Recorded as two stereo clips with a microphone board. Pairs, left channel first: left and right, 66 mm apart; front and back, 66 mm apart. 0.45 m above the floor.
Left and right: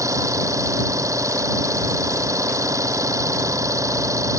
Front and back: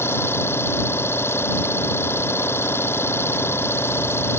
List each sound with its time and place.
0.0 s an engine running: 50° right